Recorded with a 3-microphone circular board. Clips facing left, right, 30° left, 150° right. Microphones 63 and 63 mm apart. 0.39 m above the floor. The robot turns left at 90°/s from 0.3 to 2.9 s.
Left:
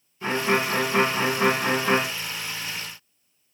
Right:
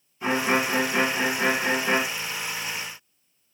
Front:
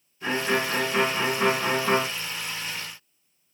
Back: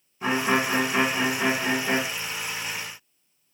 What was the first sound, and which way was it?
A violin, 175° right.